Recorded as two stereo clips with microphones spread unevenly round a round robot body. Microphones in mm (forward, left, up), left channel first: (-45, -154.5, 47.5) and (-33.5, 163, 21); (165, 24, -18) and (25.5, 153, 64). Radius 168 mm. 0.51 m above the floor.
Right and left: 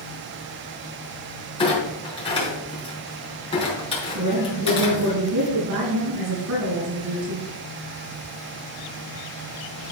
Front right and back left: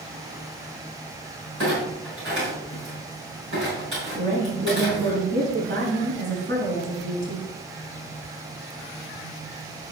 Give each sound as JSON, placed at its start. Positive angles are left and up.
{"t": 1.6, "sound": "a clunk", "azimuth_deg": -165, "distance_m": 4.5}
{"t": 4.2, "sound": "a woman speaking", "azimuth_deg": 120, "distance_m": 5.5}